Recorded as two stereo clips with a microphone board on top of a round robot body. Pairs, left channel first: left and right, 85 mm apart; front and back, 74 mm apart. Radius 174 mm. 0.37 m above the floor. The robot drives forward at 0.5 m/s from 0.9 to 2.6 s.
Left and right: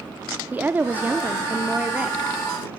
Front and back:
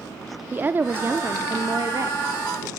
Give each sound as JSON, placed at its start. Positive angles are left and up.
{"t": 0.5, "sound": "a woman speaking", "azimuth_deg": -140, "distance_m": 1.1}